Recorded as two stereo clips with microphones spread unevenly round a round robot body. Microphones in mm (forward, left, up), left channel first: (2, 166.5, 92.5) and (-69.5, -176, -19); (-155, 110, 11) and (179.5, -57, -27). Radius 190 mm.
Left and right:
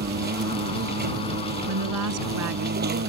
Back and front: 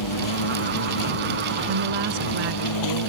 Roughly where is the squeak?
I don't hear a squeak.